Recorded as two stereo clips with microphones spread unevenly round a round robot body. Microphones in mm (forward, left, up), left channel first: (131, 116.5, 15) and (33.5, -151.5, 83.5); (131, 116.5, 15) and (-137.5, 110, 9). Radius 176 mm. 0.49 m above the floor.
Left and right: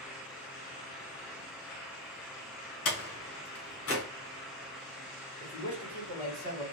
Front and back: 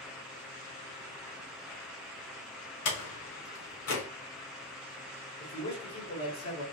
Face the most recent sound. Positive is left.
turn(degrees=40)